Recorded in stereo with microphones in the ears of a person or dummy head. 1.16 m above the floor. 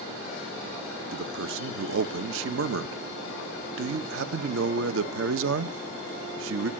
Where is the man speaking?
75° right (ahead or behind), 1.0 m.